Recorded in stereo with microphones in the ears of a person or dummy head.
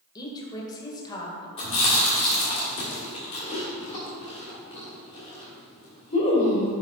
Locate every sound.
0.1 s a woman speaking: 20° left (ahead or behind), 2.0 m
1.6 s chewing: 30° left (ahead or behind), 2.5 m